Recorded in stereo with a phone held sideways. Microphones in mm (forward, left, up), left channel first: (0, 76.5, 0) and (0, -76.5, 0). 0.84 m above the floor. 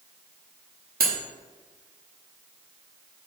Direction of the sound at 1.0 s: 80° right.